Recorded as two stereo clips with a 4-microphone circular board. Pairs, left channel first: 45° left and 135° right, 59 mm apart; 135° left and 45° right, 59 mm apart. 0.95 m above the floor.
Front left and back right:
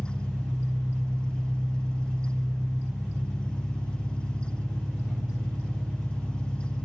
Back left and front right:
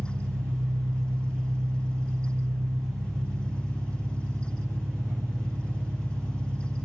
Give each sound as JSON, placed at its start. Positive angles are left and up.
{"t": 0.0, "sound": "an engine running", "azimuth_deg": -55, "distance_m": 1.6}